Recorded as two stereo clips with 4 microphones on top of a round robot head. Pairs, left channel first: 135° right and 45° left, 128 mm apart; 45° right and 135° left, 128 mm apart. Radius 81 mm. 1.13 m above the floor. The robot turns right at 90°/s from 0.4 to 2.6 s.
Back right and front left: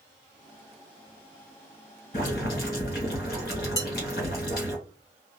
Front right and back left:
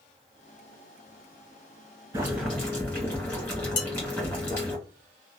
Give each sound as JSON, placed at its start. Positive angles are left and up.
{"t": 2.1, "sound": "boiling", "azimuth_deg": -160, "distance_m": 1.7}
{"t": 3.8, "sound": "dishes clattering", "azimuth_deg": -70, "distance_m": 0.9}